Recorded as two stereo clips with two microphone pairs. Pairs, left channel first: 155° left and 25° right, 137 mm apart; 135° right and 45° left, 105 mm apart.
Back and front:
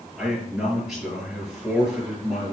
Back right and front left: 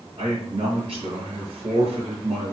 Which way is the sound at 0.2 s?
60° left.